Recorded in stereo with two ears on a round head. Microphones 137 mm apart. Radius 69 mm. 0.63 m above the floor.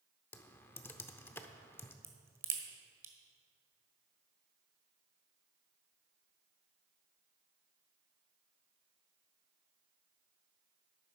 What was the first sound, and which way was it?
Typing on a keyboard, 15° left (ahead or behind).